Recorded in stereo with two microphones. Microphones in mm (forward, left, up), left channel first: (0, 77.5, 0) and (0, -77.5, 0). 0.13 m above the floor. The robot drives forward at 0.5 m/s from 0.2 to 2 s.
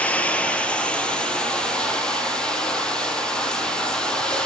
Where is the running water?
10° left (ahead or behind), 1.6 m; by 4.5 s 5° left (ahead or behind), 2.5 m.